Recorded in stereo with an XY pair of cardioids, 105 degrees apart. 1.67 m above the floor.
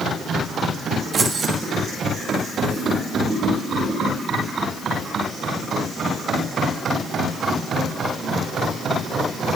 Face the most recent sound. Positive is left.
turn(degrees=-35)